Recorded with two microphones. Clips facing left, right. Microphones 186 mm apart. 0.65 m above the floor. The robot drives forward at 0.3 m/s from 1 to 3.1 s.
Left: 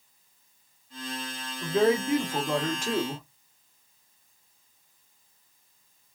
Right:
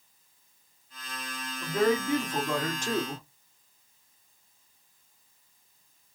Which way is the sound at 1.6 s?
10° left (ahead or behind).